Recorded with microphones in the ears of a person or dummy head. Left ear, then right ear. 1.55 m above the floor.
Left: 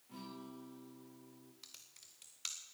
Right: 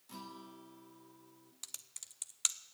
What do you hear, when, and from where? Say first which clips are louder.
0.1 s a guitar: right 2 dB; 55° right (ahead or behind), 1.5 m
1.6 s typing on a keyboard: right 9 dB; 40° right (ahead or behind), 0.6 m